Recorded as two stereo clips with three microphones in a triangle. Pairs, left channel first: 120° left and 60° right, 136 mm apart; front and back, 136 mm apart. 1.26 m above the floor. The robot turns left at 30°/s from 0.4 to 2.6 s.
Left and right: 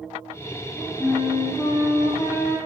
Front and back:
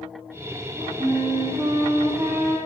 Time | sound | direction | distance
1.0 | a flute | 170° right | 0.8 m